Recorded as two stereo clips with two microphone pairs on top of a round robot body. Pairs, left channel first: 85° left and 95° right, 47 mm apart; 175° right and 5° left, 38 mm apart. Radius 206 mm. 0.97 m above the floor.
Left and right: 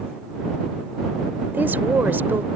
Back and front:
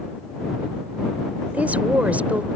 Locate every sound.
1.5 s a woman speaking: 45° right